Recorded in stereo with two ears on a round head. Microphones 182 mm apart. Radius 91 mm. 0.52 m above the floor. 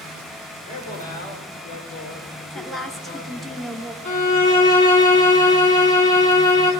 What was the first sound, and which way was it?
A man speaking, 40° left (ahead or behind).